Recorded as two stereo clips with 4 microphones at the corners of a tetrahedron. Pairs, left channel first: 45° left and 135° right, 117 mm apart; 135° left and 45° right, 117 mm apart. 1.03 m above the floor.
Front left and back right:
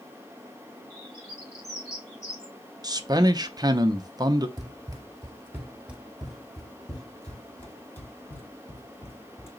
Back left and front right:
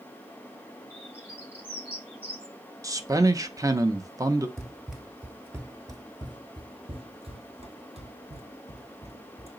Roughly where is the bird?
Ahead left.